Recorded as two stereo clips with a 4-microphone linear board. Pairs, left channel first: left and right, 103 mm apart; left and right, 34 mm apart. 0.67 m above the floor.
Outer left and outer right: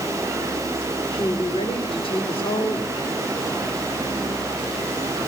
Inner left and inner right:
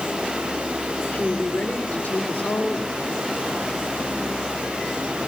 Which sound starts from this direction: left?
A woman speaking, at 1.1 s.